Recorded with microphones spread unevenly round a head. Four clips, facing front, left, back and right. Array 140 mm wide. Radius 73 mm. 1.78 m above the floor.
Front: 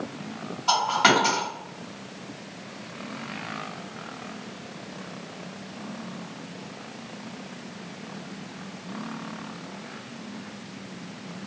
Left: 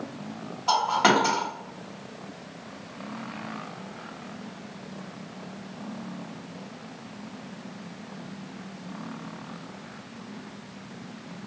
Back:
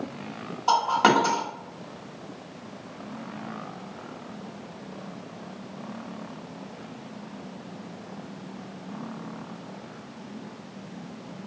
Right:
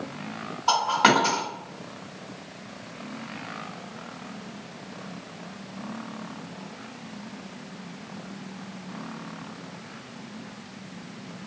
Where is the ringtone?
No ringtone in this recording.